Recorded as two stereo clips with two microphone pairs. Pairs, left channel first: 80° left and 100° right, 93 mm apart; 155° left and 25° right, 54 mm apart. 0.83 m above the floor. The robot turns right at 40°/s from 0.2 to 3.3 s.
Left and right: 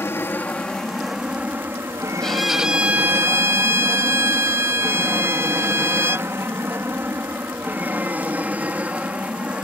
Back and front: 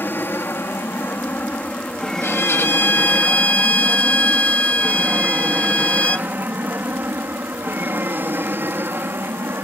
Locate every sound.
0.0 s an aircraft: 130° left; by 9.7 s 30° right
2.2 s a violin: 160° left; by 6.3 s 155° right